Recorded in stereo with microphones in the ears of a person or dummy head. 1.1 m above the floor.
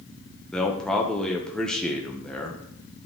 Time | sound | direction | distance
0.5 | a man speaking | centre (ahead or behind) | 0.8 m